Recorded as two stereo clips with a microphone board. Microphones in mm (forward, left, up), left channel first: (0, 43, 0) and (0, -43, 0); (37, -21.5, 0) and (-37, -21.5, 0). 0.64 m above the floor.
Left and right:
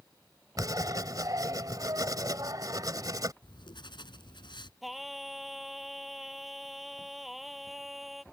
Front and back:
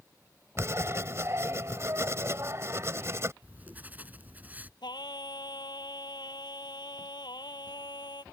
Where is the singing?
Straight ahead.